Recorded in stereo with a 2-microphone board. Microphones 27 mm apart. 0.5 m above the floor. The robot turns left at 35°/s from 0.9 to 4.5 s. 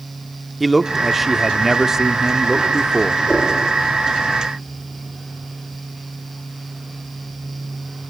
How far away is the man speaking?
About 0.8 m.